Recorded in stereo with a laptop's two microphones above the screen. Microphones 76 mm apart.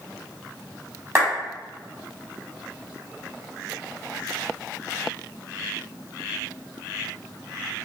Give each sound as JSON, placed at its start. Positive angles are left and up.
{"t": 1.1, "sound": "a clap", "side_deg": -35, "distance_m": 1.7}